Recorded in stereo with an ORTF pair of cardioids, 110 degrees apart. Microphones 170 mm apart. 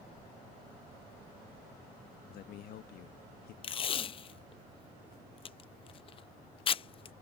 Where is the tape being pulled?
35° left.